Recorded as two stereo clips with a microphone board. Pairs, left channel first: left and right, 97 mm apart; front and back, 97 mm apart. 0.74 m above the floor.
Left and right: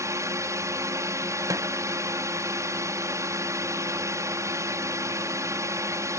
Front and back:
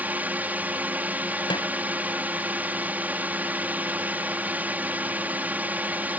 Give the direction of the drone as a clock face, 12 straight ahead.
4 o'clock.